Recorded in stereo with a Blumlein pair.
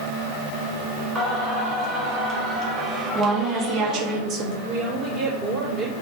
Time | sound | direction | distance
1.1 | singing | 15° right | 1.9 m
3.1 | a woman speaking | 20° right | 2 m
4.7 | a woman speaking | 20° right | 3.5 m